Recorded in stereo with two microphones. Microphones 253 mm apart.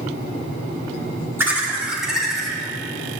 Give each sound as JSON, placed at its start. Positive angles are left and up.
{"t": 1.4, "sound": "laughter", "side_deg": -10, "distance_m": 1.6}